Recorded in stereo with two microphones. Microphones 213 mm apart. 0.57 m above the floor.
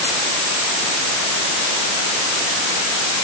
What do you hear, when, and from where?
Only background noise.